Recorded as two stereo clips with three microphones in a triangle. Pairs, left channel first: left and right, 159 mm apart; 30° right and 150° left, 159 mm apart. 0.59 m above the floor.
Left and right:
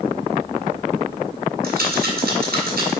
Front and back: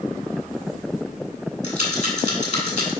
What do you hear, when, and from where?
1.6 s a rattle: 75° right, 2.5 m